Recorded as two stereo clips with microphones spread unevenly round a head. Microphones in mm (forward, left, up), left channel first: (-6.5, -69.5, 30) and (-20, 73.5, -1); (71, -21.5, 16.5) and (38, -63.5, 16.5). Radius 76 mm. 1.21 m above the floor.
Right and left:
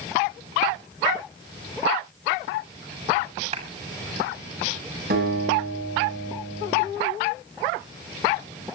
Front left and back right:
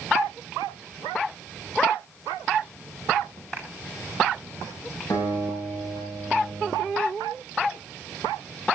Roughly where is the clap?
Behind left.